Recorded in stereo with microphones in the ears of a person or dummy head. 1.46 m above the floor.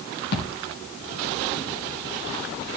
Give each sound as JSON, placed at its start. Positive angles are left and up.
{"t": 0.3, "sound": "a thud", "side_deg": 55, "distance_m": 3.0}